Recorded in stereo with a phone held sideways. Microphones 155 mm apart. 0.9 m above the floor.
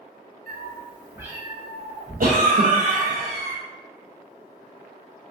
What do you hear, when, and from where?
0.5 s a cat meowing: 65° right (ahead or behind), 0.6 m; by 3.2 s 25° left (ahead or behind), 1.8 m
2.2 s a cough: 60° right (ahead or behind), 0.5 m